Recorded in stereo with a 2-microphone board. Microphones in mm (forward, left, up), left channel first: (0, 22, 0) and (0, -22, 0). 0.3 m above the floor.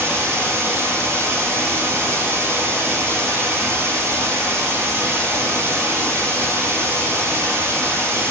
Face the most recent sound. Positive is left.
turn(degrees=-80)